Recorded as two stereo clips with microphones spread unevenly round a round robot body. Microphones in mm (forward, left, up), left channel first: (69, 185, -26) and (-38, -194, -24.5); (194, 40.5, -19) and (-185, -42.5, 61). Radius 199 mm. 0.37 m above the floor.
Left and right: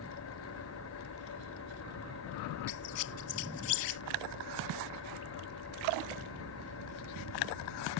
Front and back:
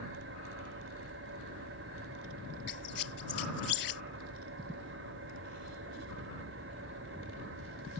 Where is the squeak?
55° left.